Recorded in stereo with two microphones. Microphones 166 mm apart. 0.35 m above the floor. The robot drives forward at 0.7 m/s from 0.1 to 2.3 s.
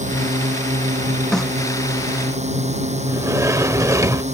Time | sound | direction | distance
0.0 | a drone | 45° right (ahead or behind) | ?
1.3 | a snare drum | 5° left (ahead or behind) | ?
3.1 | a sliding door | 20° right (ahead or behind) | ?